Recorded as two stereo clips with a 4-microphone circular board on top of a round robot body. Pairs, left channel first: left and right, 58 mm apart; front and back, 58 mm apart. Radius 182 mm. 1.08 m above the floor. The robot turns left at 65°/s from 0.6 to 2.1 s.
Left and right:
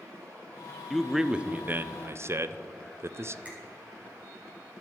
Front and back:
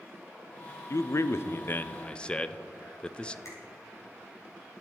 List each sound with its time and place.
0.9 s a man speaking: 10° left, 0.6 m; by 3.4 s 70° right, 0.6 m
3.5 s a finger snap: 25° right, 3.5 m